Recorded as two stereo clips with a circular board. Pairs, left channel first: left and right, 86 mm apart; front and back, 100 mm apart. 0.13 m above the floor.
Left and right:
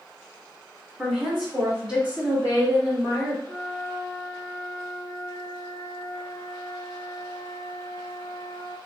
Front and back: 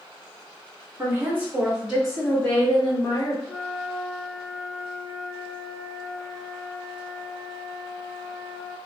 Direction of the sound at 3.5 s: 100° left.